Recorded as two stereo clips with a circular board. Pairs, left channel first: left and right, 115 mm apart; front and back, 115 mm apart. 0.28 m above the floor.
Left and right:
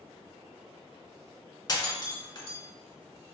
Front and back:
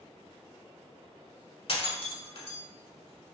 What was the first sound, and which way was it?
Breaking glass, 35° left.